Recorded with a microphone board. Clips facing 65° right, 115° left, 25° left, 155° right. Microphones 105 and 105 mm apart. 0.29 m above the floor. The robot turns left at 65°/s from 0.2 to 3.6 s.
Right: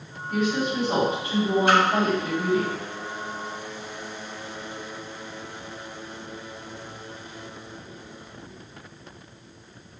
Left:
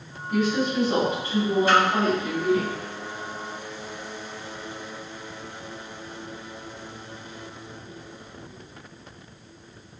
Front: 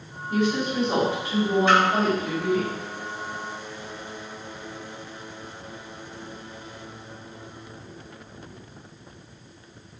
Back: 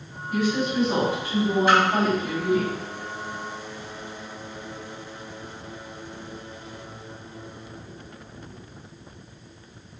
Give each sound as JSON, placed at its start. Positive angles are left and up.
{"t": 0.3, "sound": "a woman speaking", "azimuth_deg": 35, "distance_m": 1.8}
{"t": 1.7, "sound": "a splash", "azimuth_deg": -75, "distance_m": 1.0}